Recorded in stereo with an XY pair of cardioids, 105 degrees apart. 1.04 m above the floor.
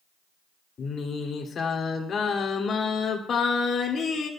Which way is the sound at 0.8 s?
50° left.